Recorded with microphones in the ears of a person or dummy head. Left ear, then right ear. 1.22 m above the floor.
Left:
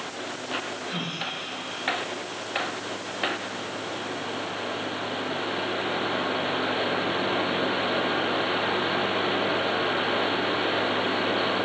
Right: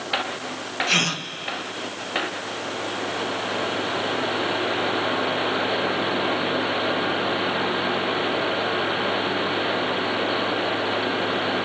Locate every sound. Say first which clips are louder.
0.9 s a gasp: right 14 dB; 80° right, 1.2 m